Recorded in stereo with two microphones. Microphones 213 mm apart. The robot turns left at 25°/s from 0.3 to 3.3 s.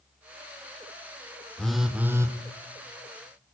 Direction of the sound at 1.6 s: 5° left (ahead or behind).